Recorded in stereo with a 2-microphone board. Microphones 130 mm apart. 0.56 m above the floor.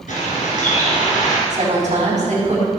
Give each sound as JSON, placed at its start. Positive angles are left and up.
{"t": 0.1, "sound": "a bird", "side_deg": 85, "distance_m": 3.0}
{"t": 1.5, "sound": "a woman speaking", "side_deg": -70, "distance_m": 4.0}